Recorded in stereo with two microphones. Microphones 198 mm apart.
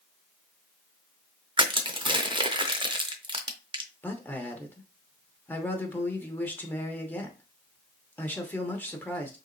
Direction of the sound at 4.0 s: 10° left (ahead or behind).